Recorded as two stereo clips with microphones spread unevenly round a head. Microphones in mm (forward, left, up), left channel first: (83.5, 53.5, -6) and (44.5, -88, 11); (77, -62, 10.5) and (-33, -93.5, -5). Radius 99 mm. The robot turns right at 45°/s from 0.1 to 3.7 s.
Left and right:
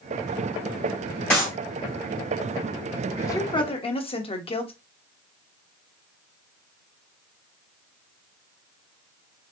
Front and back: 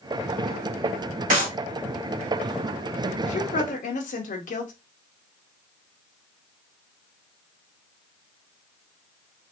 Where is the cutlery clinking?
I don't hear cutlery clinking.